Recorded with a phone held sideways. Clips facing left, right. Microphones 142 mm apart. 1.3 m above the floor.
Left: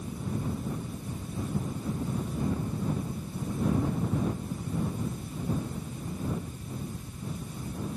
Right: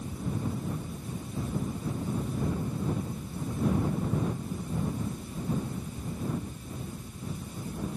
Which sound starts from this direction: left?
A fan, at 0.0 s.